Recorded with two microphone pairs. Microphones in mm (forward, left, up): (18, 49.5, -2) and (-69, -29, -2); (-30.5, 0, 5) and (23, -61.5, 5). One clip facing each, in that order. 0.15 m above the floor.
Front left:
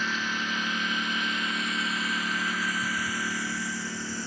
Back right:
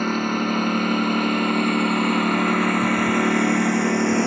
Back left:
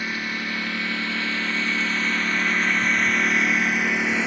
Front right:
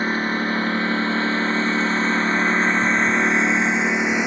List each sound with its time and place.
0.0 s a lawn mower: 100° right; by 4.3 s 120° right